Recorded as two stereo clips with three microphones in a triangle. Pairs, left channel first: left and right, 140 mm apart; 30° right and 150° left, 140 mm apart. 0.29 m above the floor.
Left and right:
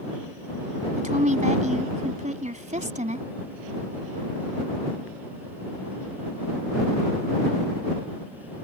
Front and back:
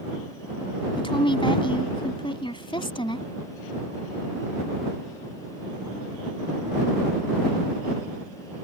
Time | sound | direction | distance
1.0 | a woman speaking | 80° right | ?